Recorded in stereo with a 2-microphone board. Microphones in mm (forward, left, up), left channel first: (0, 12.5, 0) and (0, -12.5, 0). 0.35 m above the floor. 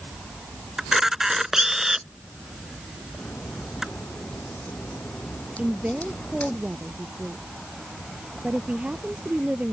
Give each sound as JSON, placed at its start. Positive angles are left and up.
{"t": 0.8, "sound": "a camera shutter", "side_deg": -20}
{"t": 3.2, "sound": "a crack", "side_deg": 75}
{"t": 5.6, "sound": "a woman speaking", "side_deg": -60}